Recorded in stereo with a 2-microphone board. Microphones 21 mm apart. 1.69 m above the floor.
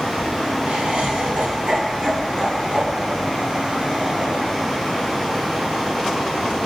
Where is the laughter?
80° right, 1.7 m; by 4.6 s 65° right (ahead or behind), 5 m.